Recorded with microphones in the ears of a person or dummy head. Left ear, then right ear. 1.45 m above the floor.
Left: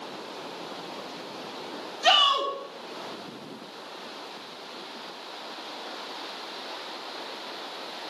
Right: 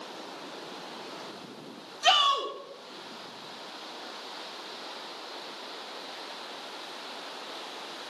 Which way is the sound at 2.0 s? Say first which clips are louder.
Left 3 dB; 5° right (ahead or behind).